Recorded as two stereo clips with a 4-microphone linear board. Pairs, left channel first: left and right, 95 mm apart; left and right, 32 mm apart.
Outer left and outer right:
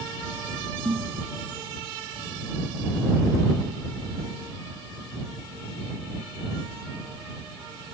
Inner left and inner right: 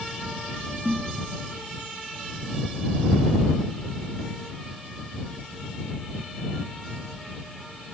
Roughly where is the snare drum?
Right.